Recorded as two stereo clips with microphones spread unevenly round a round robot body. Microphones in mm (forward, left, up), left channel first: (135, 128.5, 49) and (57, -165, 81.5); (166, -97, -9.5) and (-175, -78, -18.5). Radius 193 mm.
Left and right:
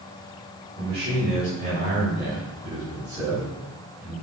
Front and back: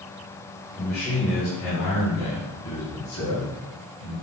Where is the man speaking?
65° right, 3.5 m; by 4.1 s 20° right, 5.5 m.